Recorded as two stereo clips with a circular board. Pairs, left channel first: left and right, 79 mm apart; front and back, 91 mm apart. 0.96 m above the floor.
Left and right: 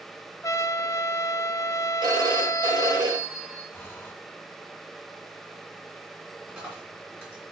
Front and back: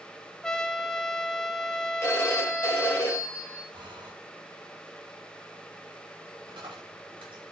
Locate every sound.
0.4 s a trumpet: 80° left, 0.6 m
2.0 s a phone ringing: 60° right, 2.5 m
3.7 s breathing: 155° left, 1.3 m
6.5 s a dropped coin: 160° right, 4.5 m